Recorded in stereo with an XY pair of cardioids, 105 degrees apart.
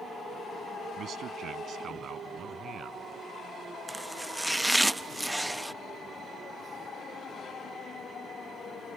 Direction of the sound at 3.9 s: 5° right.